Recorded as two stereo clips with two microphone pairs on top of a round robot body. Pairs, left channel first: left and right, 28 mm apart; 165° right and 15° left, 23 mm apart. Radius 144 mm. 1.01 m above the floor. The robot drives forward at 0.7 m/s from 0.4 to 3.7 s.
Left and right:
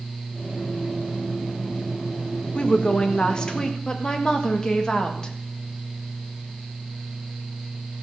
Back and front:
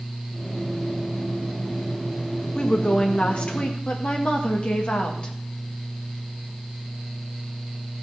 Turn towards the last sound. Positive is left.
turn(degrees=150)